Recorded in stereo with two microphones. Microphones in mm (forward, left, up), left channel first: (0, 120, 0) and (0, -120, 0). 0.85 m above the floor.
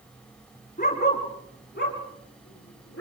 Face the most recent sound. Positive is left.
turn(degrees=65)  # may be behind; listen again after turning